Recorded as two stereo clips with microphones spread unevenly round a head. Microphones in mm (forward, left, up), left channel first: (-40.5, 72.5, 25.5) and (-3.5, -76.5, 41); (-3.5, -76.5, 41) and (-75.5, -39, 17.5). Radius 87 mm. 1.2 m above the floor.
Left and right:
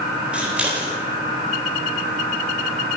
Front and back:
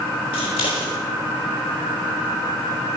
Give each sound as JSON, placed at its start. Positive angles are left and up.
{"t": 0.3, "sound": "scissors", "azimuth_deg": 5, "distance_m": 3.0}